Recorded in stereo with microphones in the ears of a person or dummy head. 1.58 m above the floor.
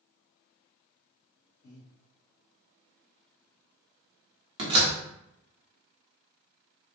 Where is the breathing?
45° left (ahead or behind), 1.7 m.